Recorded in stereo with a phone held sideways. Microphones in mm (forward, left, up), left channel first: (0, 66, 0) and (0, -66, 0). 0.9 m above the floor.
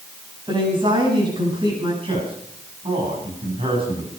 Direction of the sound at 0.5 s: 35° right (ahead or behind).